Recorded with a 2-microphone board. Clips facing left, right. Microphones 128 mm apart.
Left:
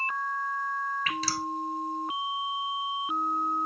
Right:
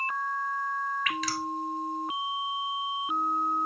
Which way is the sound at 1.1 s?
35° left (ahead or behind).